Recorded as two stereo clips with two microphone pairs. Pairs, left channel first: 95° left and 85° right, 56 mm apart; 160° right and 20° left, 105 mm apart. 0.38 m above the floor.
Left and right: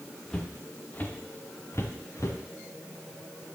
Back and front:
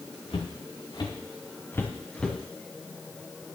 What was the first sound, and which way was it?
Footsteps, 170° left.